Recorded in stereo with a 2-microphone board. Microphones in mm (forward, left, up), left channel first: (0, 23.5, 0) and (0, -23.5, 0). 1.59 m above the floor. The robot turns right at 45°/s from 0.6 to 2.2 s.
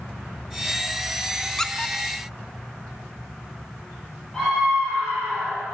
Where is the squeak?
15° left (ahead or behind), 0.9 m; by 2.0 s 25° left (ahead or behind), 0.9 m.